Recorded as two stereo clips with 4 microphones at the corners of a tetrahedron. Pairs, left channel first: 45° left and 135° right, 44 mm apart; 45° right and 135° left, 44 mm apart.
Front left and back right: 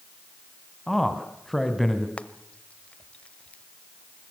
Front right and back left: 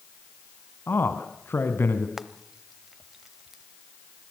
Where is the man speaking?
40° right, 2 m.